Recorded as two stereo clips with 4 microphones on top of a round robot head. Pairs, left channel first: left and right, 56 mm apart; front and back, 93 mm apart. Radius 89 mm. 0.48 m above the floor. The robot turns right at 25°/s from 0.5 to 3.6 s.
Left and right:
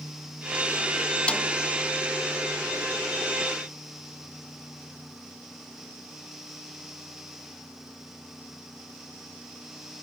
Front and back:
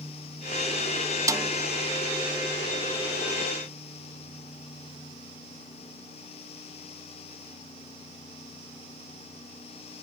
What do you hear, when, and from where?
1.3 s a snare drum: 155° left, 0.9 m; by 1.5 s 160° left, 0.9 m